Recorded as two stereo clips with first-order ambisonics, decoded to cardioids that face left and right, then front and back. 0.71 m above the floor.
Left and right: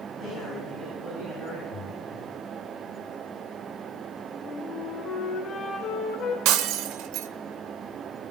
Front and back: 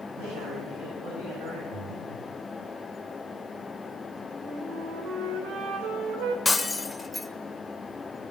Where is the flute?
150° left, 1.9 m.